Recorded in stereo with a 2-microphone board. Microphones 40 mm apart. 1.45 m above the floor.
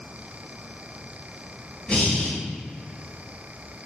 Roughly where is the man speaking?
No man speaking in this recording.